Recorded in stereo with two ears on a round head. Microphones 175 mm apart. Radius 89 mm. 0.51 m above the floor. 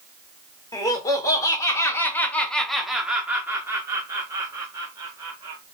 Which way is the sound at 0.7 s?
20° left (ahead or behind).